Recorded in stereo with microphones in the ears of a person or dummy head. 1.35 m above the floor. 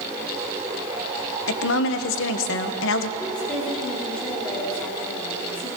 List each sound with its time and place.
1.5 s a woman speaking: 70° left (ahead or behind), 1.1 m
3.2 s a woman speaking: 5° left (ahead or behind), 3 m